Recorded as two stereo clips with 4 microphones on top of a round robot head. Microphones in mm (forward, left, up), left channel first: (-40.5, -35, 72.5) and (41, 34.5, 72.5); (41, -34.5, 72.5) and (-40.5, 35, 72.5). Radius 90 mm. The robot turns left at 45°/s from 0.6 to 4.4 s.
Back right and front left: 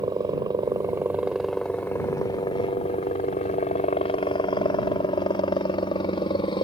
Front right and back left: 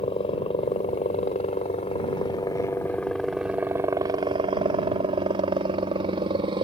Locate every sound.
0.0 s a helicopter: 10° right; by 6.7 s straight behind